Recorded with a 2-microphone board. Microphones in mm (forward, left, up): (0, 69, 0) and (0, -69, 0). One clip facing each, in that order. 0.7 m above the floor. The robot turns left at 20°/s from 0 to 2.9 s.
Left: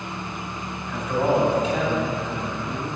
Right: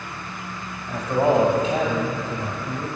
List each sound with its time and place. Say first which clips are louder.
0.9 s a man speaking: right 2 dB; 30° right, 1.4 m; by 2.9 s 70° right, 1.4 m